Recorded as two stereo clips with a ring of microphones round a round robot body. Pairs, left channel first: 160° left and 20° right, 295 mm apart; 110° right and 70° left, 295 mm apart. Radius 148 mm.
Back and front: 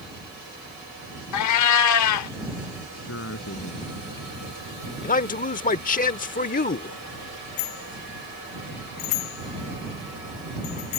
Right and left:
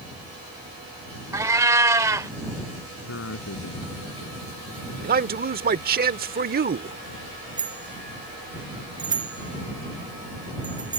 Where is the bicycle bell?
145° left.